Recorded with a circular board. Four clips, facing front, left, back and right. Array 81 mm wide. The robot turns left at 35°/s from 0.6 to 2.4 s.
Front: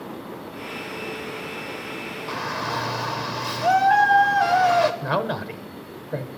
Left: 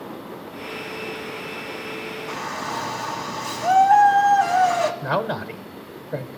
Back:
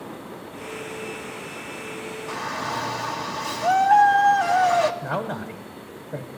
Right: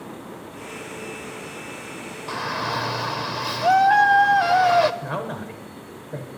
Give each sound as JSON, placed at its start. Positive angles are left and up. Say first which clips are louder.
{"t": 2.3, "sound": "a shout", "louder": "right 4 dB, front 1 dB", "azimuth_deg": -60, "distance_m": 0.9}
{"t": 5.0, "sound": "a man speaking", "louder": "left 5 dB, front 3 dB", "azimuth_deg": 40, "distance_m": 1.0}